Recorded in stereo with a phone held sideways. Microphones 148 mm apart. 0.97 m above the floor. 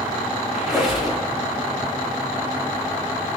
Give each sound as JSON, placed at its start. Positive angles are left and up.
{"t": 0.5, "sound": "a squeak", "side_deg": 0, "distance_m": 1.3}